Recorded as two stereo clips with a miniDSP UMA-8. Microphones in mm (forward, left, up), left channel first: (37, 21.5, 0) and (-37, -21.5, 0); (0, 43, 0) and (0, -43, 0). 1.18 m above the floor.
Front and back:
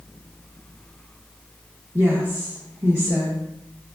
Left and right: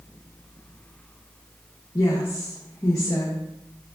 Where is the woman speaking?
145° left, 1.1 m.